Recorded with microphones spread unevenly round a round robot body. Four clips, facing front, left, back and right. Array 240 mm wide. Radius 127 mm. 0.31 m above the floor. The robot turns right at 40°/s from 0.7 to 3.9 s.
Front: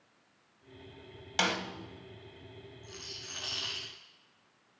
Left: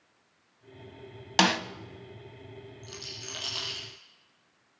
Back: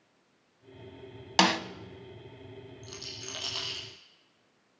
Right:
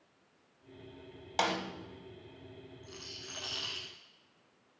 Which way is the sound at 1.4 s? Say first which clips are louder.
Left 7 dB, back 7 dB; 125° left.